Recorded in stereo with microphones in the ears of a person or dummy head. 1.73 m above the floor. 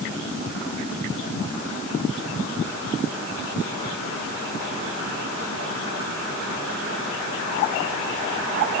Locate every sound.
Only background noise.